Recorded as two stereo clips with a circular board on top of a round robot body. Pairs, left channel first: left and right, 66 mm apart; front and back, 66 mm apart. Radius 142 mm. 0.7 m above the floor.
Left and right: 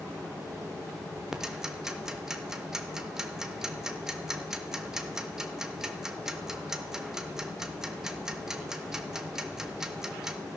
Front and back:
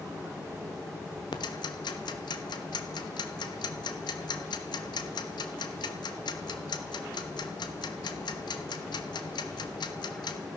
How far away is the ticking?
About 0.8 m.